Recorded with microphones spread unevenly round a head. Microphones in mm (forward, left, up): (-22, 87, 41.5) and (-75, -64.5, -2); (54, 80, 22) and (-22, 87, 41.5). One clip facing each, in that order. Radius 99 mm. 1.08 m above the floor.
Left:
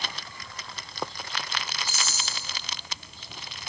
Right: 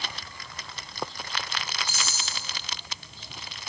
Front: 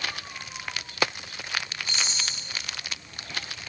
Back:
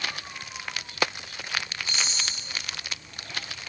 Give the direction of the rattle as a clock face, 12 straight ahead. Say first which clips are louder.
Even, even; 5 o'clock.